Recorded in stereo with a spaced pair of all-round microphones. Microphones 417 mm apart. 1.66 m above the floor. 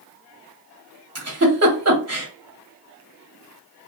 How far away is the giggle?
About 0.7 m.